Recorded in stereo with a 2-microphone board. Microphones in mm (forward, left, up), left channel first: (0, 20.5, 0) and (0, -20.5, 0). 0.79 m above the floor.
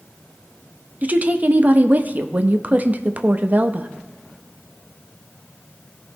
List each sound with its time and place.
1.0 s a woman speaking: 40° right (ahead or behind), 0.6 m